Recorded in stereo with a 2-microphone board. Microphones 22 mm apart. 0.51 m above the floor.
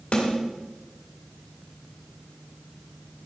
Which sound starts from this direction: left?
A snare drum, at 0.1 s.